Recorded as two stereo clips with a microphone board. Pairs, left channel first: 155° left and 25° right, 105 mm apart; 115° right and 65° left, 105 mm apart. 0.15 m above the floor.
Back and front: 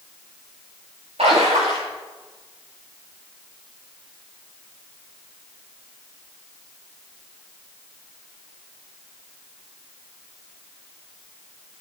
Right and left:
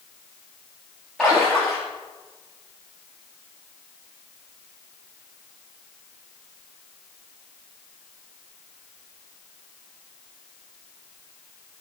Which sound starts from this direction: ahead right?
A splash, at 1.2 s.